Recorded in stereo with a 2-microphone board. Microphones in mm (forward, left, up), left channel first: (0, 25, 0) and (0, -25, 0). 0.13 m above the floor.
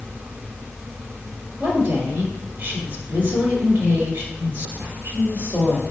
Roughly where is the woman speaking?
Right.